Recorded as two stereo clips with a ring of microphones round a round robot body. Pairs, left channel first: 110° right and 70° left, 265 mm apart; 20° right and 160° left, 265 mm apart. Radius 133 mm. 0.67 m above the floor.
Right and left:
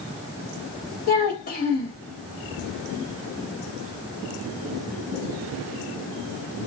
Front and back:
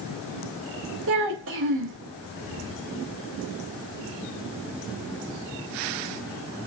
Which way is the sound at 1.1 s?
165° right.